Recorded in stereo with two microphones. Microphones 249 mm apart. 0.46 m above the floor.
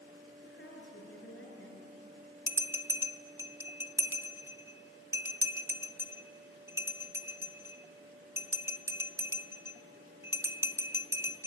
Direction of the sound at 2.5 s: 10° right (ahead or behind).